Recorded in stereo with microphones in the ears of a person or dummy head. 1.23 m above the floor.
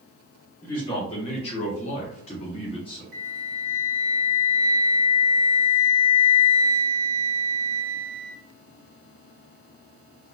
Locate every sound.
0.6 s a man speaking: 20° left (ahead or behind), 0.8 m; by 3.0 s 25° left (ahead or behind), 1.0 m
3.1 s a flute: 60° right (ahead or behind), 1.1 m